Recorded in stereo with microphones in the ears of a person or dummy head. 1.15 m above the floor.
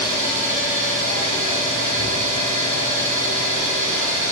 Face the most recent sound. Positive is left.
turn(degrees=-40)  # may be behind; listen again after turning